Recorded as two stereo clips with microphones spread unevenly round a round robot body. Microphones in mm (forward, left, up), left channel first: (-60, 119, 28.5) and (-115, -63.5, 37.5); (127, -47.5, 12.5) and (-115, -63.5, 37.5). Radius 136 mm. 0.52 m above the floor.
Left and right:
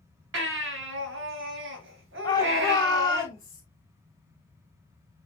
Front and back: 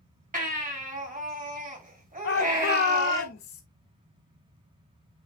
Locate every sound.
0.3 s a baby crying: 120° right, 2.5 m
2.2 s a shout: 5° left, 1.3 m